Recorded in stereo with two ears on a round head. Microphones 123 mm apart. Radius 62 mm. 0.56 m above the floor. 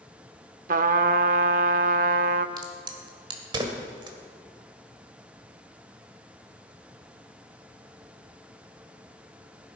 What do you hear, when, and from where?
0.7 s a trumpet: 65° right (ahead or behind), 0.6 m
2.6 s a crack: 35° right (ahead or behind), 1.5 m